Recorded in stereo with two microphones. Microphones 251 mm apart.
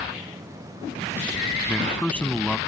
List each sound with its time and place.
1.7 s a man speaking: 5° left (ahead or behind)